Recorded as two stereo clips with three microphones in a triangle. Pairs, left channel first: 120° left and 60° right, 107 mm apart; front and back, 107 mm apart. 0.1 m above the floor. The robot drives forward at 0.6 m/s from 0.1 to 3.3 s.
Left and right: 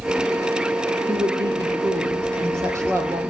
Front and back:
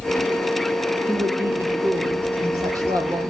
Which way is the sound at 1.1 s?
110° right.